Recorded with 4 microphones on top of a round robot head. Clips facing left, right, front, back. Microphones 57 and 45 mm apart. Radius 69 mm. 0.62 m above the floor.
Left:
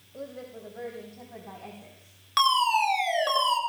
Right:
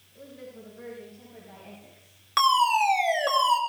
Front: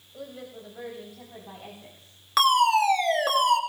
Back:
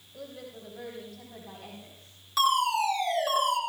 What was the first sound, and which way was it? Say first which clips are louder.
A woman speaking: left 4 dB, front 2 dB; 75° left.